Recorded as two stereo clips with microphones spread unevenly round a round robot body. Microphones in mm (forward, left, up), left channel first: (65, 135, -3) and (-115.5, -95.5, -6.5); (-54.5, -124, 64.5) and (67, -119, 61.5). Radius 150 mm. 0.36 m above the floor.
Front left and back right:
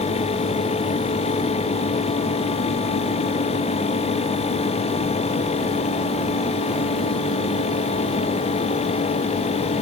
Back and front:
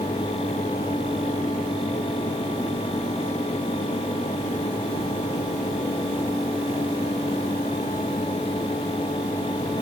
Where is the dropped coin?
I don't hear a dropped coin.